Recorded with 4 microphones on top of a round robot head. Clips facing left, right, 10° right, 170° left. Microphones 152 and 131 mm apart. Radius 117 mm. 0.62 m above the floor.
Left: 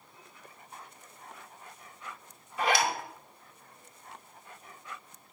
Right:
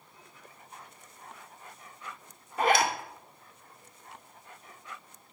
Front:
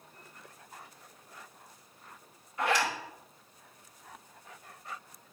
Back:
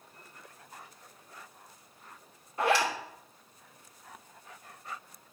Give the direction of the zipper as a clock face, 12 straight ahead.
4 o'clock.